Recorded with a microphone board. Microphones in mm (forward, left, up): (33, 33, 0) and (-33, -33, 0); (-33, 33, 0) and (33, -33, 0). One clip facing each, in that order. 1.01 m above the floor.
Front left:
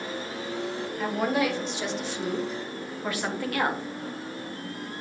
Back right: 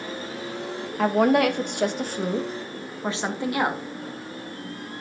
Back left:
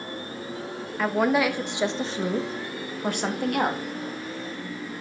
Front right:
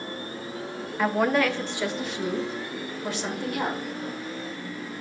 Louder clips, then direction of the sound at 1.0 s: Back right 7 dB, even; 130° right.